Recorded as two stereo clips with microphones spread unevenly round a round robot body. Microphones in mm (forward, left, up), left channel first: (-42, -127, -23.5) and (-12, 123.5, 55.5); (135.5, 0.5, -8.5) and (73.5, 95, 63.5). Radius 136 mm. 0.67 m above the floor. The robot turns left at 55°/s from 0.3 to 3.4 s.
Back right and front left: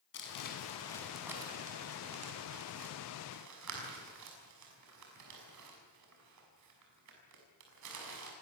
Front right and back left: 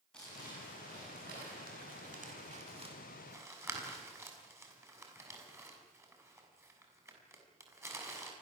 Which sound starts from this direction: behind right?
Crumpling, at 0.1 s.